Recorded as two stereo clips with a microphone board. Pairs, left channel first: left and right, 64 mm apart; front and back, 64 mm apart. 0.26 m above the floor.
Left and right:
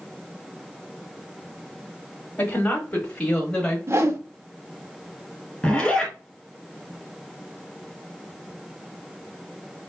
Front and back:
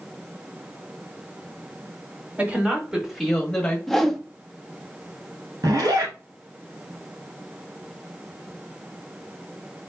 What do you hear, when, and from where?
2.4 s a woman speaking: 135° left, 1.4 m; by 3.8 s 35° left, 1.2 m
3.9 s a whoosh: 85° right, 0.8 m
5.6 s a zipper: 170° left, 2.5 m